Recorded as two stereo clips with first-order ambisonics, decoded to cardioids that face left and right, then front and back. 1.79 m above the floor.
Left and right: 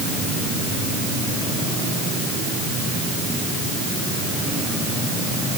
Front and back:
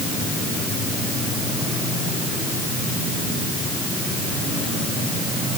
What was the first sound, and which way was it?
Only background noise.